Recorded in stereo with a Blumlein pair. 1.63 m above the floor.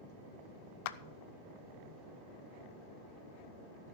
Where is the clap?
45° left, 0.7 m.